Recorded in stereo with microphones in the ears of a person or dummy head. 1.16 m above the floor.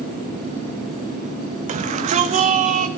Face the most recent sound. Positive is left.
turn(degrees=-40)  # may be behind; listen again after turning